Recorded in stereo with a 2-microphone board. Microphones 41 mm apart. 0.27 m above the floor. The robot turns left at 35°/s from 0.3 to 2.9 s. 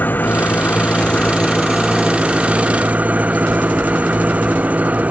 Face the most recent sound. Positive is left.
turn(degrees=-35)